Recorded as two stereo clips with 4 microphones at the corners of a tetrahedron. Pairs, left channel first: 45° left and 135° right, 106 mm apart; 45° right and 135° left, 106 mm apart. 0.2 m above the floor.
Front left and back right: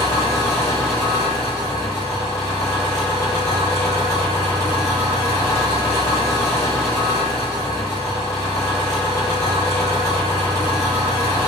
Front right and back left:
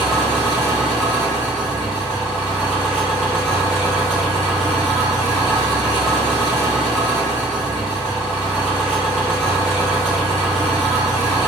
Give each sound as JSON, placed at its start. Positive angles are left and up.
{"t": 0.0, "sound": "an engine running", "azimuth_deg": 45, "distance_m": 1.4}